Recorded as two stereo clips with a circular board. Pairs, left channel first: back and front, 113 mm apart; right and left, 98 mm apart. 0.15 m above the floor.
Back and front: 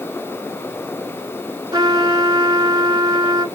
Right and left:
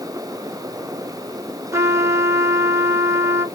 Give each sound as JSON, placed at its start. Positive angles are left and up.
{"t": 1.7, "sound": "a trumpet", "azimuth_deg": 40, "distance_m": 0.8}